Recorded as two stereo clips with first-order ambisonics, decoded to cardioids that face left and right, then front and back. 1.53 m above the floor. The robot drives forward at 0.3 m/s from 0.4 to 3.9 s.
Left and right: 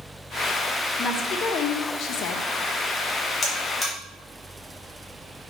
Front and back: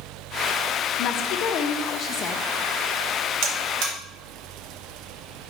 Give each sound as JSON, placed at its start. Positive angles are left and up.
{"t": 1.0, "sound": "a woman speaking", "azimuth_deg": 35, "distance_m": 0.8}
{"t": 3.4, "sound": "a buzzer", "azimuth_deg": 155, "distance_m": 1.3}